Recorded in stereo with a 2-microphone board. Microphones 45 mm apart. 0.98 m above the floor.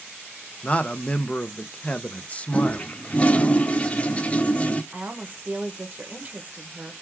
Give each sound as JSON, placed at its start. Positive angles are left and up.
{"t": 0.6, "sound": "a man speaking", "side_deg": 30, "distance_m": 0.5}
{"t": 2.5, "sound": "a toilet flushing", "side_deg": 30, "distance_m": 0.5}
{"t": 4.9, "sound": "a woman speaking", "side_deg": -40, "distance_m": 0.9}